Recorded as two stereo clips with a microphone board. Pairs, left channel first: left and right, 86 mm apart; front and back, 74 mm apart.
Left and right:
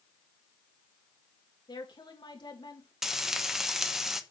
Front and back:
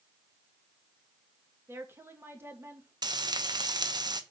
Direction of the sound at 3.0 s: 175° right.